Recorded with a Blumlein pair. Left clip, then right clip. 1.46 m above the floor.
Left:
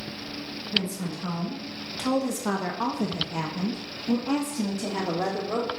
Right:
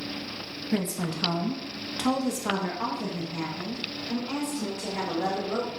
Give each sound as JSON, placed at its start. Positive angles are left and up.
{"t": 0.7, "sound": "a woman speaking", "azimuth_deg": -40, "distance_m": 1.5}